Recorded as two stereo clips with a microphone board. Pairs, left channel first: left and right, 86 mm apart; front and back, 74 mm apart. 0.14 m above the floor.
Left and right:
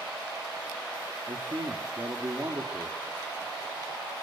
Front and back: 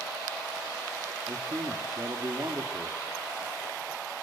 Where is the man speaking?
135° right, 3.5 m.